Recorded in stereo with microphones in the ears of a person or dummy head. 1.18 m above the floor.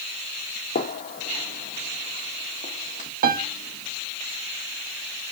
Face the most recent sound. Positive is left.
turn(degrees=-50)  # may be behind; listen again after turning